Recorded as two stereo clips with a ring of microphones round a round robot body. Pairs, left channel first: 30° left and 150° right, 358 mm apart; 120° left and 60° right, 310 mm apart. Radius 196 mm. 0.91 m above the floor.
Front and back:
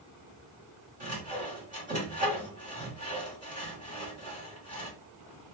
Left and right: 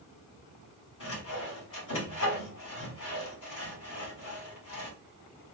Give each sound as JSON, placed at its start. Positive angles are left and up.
{"t": 1.0, "sound": "sawing", "azimuth_deg": 140, "distance_m": 2.0}